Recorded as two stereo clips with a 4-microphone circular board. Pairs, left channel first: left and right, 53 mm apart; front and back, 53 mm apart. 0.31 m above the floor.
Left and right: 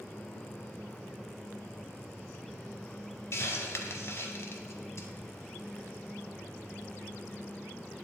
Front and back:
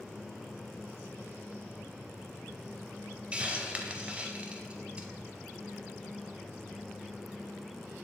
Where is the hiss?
115° left, 0.6 m.